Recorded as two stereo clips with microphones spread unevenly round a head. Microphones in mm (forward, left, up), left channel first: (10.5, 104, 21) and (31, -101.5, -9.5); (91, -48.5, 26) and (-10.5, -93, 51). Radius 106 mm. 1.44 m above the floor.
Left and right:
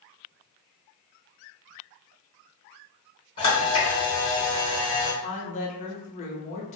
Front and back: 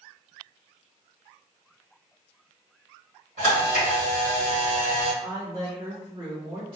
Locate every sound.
3.4 s a camera shutter: 160° left, 1.0 m
5.2 s a woman speaking: 145° left, 0.6 m